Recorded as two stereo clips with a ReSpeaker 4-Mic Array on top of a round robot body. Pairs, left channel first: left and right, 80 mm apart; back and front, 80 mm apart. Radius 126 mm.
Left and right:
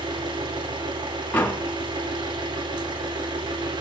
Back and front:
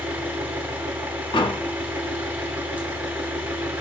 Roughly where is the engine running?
Right.